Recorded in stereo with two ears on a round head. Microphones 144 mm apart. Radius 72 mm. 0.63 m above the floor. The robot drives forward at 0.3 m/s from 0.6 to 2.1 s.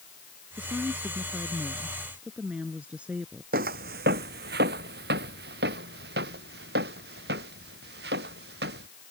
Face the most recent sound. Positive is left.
turn(degrees=-70)  # may be behind; listen again after turning